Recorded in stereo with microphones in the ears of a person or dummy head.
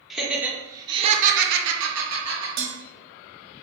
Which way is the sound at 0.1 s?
Centre (ahead or behind).